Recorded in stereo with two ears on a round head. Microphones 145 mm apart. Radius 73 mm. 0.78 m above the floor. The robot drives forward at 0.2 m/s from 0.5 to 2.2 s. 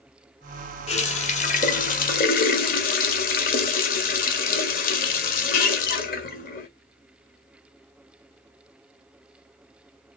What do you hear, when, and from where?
0.9 s a running tap: 40° left (ahead or behind), 0.9 m; by 6.7 s 55° left (ahead or behind), 0.7 m